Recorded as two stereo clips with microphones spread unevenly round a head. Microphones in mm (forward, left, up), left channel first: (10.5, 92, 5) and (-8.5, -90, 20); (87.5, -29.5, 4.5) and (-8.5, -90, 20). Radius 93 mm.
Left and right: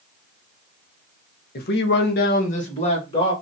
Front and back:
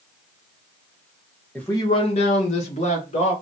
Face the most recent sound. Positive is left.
turn(degrees=20)